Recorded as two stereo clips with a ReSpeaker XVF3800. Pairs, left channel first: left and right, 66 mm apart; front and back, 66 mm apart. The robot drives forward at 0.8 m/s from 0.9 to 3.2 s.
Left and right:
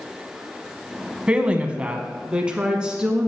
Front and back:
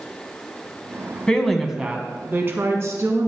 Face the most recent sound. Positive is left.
turn(degrees=-165)